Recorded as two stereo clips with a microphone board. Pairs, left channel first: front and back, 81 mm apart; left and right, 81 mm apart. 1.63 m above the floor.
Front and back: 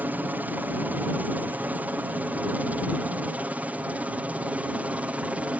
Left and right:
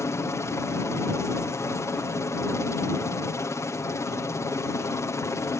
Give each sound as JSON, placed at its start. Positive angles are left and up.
{"t": 0.0, "sound": "a helicopter", "azimuth_deg": 125}